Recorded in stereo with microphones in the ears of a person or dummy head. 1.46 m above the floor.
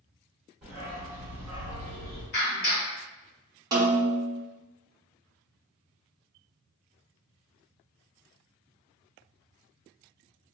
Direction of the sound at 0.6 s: 15° right (ahead or behind).